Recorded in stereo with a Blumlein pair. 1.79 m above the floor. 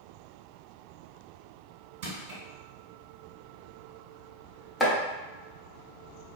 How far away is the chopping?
About 0.8 m.